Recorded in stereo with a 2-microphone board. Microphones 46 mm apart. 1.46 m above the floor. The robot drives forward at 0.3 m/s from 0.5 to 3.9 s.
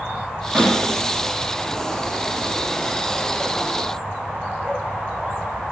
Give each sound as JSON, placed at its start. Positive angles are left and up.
{"t": 0.6, "sound": "a snare drum", "side_deg": -45, "distance_m": 1.3}